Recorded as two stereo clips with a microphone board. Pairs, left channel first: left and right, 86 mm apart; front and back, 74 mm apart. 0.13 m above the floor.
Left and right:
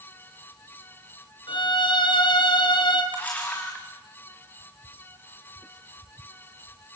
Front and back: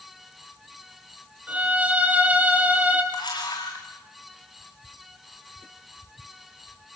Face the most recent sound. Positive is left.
turn(degrees=15)